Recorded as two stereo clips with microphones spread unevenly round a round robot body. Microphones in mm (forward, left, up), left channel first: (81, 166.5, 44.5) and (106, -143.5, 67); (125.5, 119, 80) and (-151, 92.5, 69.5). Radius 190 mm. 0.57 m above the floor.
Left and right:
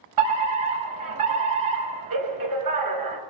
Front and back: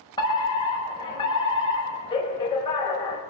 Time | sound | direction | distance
0.2 | a fire alarm | 70° right | 6.5 m